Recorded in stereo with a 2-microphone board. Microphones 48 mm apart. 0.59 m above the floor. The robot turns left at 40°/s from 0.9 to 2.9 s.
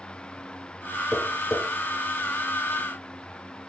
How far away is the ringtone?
No ringtone in this recording.